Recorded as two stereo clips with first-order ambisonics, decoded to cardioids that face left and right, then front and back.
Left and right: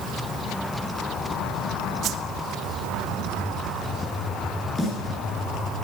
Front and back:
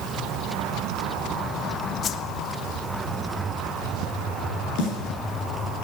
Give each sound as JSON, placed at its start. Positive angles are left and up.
{"t": 2.0, "sound": "a whoosh", "azimuth_deg": -50, "distance_m": 0.5}
{"t": 4.8, "sound": "a snare drum", "azimuth_deg": 5, "distance_m": 4.0}